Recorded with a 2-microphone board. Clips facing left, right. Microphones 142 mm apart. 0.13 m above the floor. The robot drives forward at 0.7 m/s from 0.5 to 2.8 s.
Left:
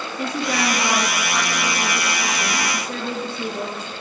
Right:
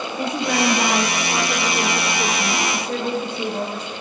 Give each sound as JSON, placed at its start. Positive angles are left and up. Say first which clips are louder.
{"t": 0.2, "sound": "a woman speaking", "louder": "right 2 dB", "side_deg": -50, "distance_m": 6.5}